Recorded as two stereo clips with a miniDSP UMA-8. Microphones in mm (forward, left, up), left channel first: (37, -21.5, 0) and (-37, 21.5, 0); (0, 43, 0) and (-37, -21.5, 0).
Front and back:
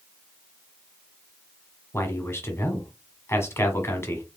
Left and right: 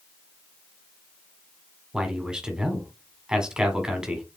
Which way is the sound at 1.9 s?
50° right.